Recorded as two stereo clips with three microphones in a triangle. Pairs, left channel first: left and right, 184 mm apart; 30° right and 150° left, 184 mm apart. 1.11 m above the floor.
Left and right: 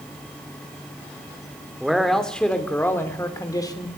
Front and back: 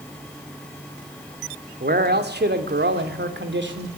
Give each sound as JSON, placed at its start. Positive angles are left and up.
{"t": 1.8, "sound": "a man speaking", "azimuth_deg": 180, "distance_m": 3.0}